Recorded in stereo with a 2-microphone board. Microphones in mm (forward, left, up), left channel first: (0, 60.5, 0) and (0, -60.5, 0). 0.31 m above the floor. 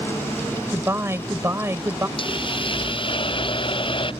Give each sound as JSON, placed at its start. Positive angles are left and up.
{"t": 0.7, "sound": "a man speaking", "side_deg": -20}
{"t": 2.2, "sound": "a hiss", "side_deg": 45}